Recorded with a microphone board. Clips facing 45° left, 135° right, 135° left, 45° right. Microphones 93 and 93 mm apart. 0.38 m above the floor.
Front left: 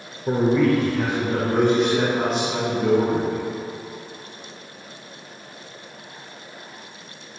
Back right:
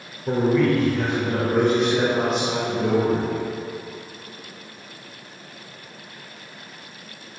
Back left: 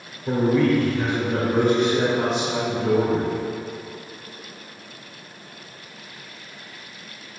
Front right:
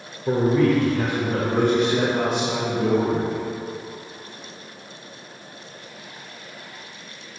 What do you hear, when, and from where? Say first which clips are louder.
0.3 s a man speaking: front left 1 dB, even; straight ahead, 1.0 m; by 3.4 s 50° right, 4.5 m